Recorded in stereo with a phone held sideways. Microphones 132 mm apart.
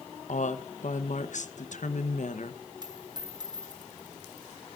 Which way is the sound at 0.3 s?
65° left (ahead or behind).